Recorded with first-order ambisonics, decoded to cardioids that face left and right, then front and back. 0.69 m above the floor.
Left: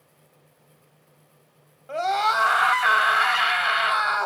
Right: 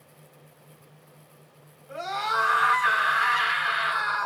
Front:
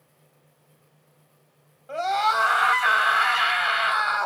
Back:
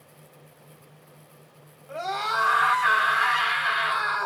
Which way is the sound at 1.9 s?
70° left.